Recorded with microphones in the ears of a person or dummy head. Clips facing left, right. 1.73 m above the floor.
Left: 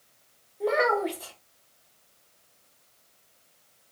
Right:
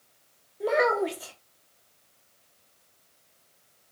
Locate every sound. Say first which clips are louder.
0.6 s a child speaking: right 1 dB; 10° right (ahead or behind), 0.9 m